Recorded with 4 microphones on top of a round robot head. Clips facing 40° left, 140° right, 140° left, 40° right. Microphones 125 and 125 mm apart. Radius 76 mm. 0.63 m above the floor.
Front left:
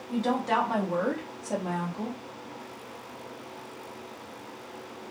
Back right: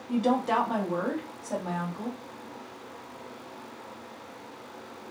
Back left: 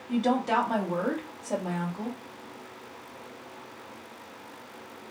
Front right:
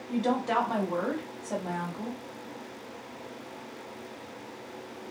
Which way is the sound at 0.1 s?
155° right.